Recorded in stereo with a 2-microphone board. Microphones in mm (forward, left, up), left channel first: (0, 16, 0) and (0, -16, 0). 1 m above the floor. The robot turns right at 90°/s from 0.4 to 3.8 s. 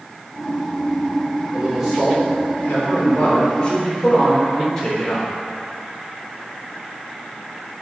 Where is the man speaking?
40° right, 3 m; by 5.3 s 165° left, 3 m.